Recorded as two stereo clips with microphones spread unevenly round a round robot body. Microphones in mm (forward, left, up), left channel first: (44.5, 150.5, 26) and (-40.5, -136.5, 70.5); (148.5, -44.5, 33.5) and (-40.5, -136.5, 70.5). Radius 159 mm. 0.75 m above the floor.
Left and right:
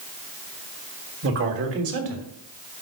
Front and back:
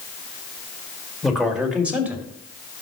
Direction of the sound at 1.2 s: 60° right.